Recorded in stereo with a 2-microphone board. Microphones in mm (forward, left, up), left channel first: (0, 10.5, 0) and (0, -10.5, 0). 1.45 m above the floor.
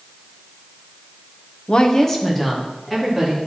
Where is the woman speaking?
50° left (ahead or behind), 0.6 m; by 3.4 s centre (ahead or behind), 3 m.